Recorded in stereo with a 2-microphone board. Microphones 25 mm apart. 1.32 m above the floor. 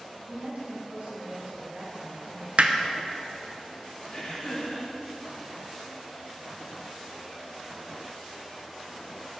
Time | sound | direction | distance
0.3 | a woman speaking | 80° right | 1.9 m
2.6 | hammering | 60° right (ahead or behind) | 0.5 m
4.1 | laughter | 60° left (ahead or behind) | 1.7 m